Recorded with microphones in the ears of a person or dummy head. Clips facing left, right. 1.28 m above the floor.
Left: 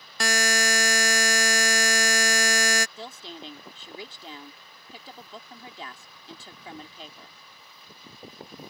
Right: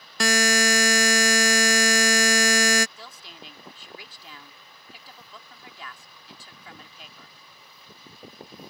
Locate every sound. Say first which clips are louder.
0.2 s a buzzer: right 4 dB; 65° right (ahead or behind)
3.0 s a woman speaking: left 6 dB; 35° left (ahead or behind)